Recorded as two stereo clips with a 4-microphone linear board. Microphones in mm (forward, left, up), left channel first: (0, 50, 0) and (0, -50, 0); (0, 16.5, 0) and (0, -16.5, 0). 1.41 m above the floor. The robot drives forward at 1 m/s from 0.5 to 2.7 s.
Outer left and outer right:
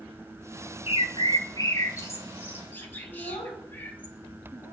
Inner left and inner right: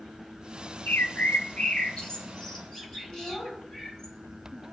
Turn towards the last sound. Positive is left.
turn(degrees=80)